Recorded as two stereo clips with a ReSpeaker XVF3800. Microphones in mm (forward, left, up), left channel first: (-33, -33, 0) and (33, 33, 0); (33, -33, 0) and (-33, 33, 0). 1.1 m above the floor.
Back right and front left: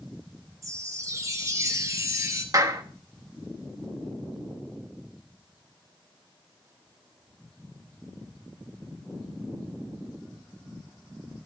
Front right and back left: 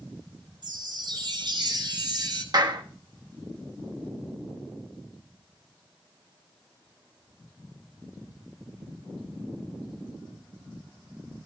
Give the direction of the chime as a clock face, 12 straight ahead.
9 o'clock.